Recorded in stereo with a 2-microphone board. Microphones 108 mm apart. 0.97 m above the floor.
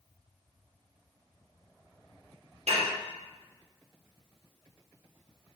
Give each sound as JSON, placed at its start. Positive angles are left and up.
{"t": 2.7, "sound": "dishes clattering", "side_deg": -80, "distance_m": 0.6}